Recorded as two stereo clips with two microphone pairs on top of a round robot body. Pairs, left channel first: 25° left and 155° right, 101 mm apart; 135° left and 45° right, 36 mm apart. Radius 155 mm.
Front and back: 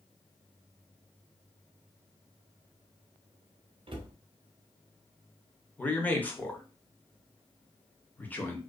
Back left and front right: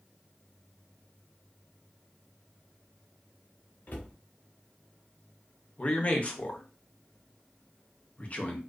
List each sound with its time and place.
3.9 s a cupboard door: 175° left, 0.6 m
5.8 s a man speaking: 105° left, 0.9 m